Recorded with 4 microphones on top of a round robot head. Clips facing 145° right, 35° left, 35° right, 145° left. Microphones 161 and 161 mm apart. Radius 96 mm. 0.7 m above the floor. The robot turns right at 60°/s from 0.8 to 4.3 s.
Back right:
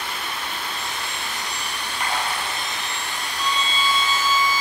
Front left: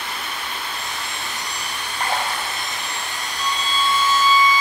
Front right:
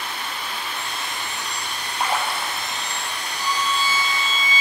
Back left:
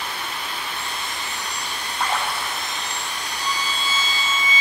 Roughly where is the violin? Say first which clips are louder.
Front left 1 dB, front right 4 dB; behind right.